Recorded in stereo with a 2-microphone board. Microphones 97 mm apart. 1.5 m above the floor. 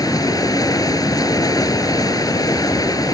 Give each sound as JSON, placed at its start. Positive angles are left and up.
{"t": 0.0, "sound": "running water", "side_deg": 40}